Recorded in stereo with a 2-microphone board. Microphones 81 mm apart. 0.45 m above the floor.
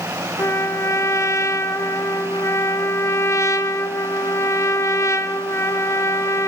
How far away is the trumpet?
About 1.3 m.